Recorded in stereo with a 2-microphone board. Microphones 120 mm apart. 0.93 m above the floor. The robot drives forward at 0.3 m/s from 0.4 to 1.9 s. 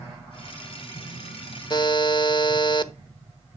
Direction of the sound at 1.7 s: 35° left (ahead or behind).